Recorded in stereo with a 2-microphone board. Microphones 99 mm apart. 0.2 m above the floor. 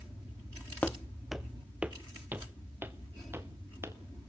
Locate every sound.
0.8 s footsteps: 15° left (ahead or behind), 0.6 m; by 4.0 s 25° right (ahead or behind), 2.5 m